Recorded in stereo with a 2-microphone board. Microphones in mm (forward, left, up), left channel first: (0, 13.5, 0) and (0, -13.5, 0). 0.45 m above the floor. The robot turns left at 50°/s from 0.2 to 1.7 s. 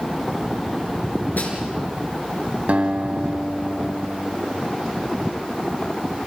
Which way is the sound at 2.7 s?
60° right (ahead or behind).